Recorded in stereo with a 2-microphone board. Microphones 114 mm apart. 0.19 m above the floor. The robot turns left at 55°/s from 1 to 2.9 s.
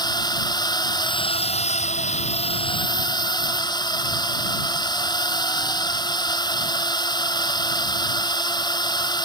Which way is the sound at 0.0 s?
145° left.